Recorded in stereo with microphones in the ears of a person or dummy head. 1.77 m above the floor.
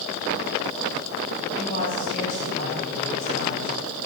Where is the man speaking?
30° left (ahead or behind), 7.5 m; by 3.8 s 45° left (ahead or behind), 5 m.